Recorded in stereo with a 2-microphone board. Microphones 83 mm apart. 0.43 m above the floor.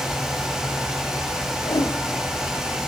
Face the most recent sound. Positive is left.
turn(degrees=60)  # may be behind; listen again after turning